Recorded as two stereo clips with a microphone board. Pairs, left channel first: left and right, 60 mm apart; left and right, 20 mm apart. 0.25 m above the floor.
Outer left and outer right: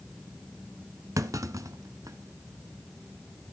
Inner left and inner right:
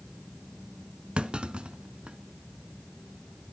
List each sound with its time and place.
1.2 s a clunk: 65° right (ahead or behind), 0.9 m